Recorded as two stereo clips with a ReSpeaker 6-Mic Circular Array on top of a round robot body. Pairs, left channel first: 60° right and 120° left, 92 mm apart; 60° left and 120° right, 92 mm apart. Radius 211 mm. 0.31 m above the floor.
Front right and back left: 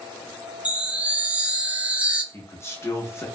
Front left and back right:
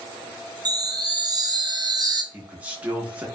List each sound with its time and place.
0.7 s a chime: 165° right, 0.5 m
2.3 s a man speaking: 60° right, 1.0 m